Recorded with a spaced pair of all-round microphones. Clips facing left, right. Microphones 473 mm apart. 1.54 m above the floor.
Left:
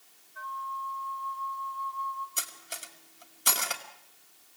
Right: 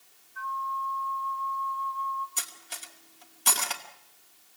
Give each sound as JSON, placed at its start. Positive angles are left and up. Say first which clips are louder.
{"t": 0.3, "sound": "a flute", "louder": "right 4 dB", "side_deg": -10, "distance_m": 1.6}
{"t": 2.4, "sound": "cutlery clinking", "louder": "left 2 dB", "side_deg": -10, "distance_m": 1.7}